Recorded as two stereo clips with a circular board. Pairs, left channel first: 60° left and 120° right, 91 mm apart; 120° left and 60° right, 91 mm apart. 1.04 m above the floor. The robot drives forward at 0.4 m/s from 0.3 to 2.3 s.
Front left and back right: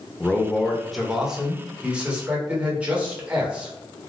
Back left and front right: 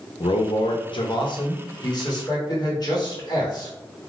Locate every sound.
0.2 s a man speaking: 135° left, 0.5 m; by 3.7 s 165° left, 1.2 m